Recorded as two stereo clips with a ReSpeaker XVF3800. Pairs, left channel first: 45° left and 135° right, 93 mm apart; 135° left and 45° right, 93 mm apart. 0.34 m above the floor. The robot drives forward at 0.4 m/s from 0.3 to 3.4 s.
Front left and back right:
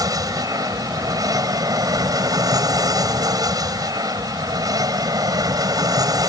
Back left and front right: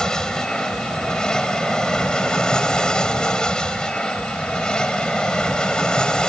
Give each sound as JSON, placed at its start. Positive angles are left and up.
{"t": 0.0, "sound": "an aircraft", "azimuth_deg": -145}